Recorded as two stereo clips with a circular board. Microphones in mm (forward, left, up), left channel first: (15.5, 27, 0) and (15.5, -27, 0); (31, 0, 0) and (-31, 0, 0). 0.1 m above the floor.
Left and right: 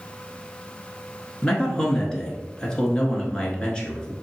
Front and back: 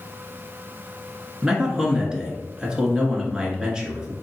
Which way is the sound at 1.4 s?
130° left.